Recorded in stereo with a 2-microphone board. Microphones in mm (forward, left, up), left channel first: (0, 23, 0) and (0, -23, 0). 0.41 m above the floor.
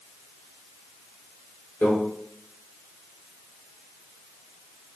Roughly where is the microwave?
Left.